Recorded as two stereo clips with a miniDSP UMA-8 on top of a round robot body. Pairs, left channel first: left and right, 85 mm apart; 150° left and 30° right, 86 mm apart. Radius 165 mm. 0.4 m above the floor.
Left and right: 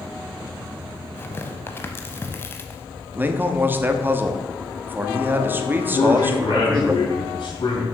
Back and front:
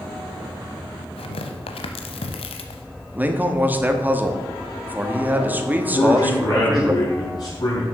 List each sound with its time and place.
1.2 s tearing paper: 155° left, 0.8 m
3.1 s a man speaking: 70° right, 1.4 m
5.9 s a man speaking: 110° left, 3.5 m